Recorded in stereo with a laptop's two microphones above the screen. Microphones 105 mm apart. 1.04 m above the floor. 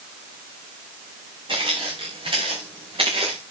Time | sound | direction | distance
1.5 | footsteps | 55° right (ahead or behind) | 5 m